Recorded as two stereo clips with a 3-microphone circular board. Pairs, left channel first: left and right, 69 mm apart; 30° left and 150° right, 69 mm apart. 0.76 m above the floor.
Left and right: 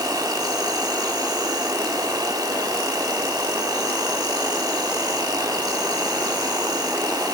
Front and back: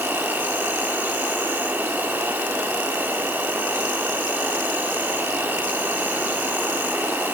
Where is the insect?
90° right, 2.0 m.